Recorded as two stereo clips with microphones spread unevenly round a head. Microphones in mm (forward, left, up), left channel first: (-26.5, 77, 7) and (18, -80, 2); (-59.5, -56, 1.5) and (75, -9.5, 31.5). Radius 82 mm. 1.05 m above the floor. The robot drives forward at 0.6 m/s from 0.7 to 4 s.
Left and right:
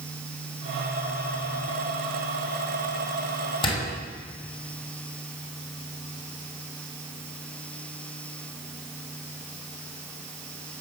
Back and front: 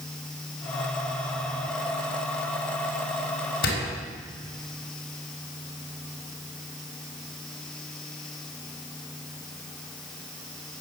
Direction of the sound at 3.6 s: 170° left.